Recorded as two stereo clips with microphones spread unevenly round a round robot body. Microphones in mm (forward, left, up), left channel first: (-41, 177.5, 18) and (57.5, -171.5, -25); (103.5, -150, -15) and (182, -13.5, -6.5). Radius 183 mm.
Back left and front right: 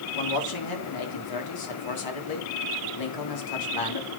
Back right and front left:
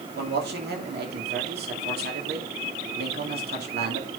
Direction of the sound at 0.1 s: 75° left.